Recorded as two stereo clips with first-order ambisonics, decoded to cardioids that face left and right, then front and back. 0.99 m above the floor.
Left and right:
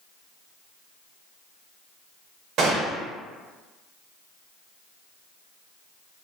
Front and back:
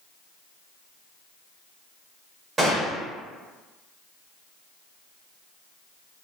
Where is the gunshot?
115° right, 0.8 m.